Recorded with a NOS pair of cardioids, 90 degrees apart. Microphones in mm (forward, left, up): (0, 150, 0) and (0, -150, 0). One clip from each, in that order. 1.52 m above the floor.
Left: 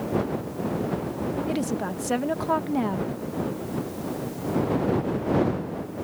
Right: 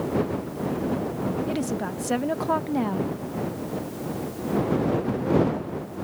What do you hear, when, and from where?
1.5 s a woman speaking: straight ahead